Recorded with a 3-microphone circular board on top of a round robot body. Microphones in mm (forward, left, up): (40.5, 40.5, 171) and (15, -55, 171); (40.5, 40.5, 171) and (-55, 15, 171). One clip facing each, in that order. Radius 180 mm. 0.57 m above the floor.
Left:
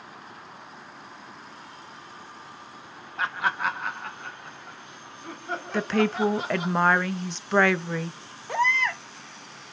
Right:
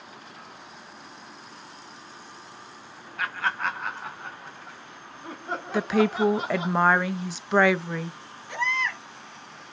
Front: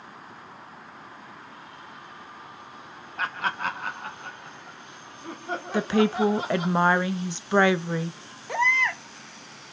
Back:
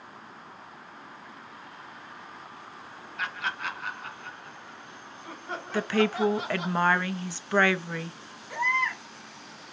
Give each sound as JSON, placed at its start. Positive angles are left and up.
{"t": 3.2, "sound": "laughter", "azimuth_deg": 25, "distance_m": 0.7}
{"t": 5.7, "sound": "a woman speaking", "azimuth_deg": -25, "distance_m": 0.6}
{"t": 8.5, "sound": "a baby crying", "azimuth_deg": 25, "distance_m": 0.6}